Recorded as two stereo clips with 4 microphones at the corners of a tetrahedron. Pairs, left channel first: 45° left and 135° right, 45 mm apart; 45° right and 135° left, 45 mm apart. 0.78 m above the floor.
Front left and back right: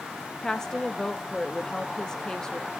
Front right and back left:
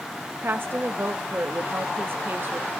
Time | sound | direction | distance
0.4 | a woman speaking | 120° left | 0.7 m